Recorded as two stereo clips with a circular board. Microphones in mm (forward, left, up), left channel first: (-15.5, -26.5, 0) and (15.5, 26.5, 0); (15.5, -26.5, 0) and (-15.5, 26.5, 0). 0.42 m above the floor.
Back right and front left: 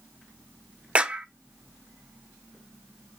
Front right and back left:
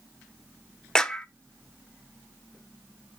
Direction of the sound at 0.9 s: 5° left.